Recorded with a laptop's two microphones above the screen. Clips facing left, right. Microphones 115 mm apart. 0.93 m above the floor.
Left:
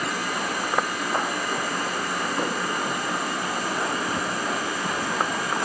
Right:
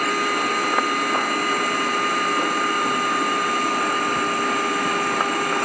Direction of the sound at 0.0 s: 65° right (ahead or behind).